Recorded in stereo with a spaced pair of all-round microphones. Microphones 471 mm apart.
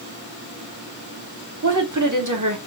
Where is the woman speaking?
40° right (ahead or behind), 1.3 m.